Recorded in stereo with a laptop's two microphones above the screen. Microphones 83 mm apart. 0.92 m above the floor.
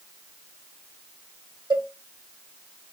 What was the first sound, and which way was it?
A cowbell, 70° right (ahead or behind).